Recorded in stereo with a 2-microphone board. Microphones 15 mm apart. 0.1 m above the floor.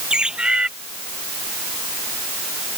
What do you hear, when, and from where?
0.1 s a bird: 65° right (ahead or behind)